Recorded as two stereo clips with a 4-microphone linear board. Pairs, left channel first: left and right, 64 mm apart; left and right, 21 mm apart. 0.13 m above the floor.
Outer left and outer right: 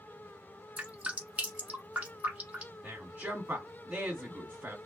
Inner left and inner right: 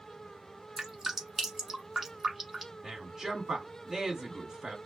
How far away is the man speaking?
About 1.7 m.